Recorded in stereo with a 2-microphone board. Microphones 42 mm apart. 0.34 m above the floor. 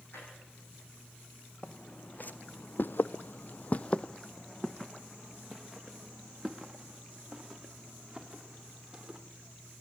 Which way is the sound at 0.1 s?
55° left (ahead or behind).